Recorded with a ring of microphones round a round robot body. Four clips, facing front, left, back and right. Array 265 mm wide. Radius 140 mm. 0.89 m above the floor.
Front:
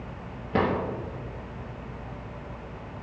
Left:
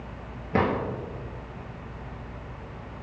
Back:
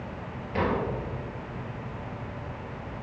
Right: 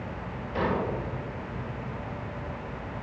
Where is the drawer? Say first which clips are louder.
Left 4 dB, front 2 dB; 55° left, 5.5 m.